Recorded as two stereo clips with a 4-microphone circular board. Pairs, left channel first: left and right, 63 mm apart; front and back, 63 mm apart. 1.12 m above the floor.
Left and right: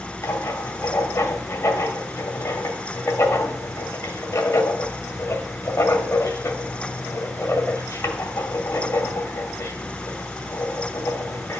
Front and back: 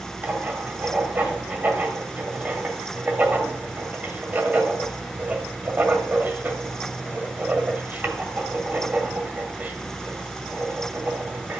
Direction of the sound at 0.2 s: 125° left.